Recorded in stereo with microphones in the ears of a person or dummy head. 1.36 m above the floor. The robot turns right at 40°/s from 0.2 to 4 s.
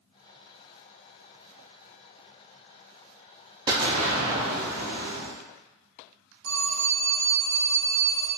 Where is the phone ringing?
55° right (ahead or behind), 0.9 m.